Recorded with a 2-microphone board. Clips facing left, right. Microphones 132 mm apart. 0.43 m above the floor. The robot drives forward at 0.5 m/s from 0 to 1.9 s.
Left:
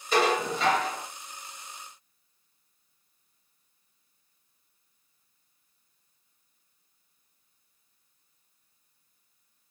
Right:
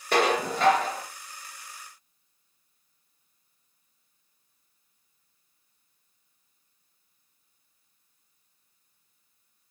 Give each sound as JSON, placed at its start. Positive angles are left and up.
{"t": 0.1, "sound": "dishes clattering", "side_deg": -60, "distance_m": 1.1}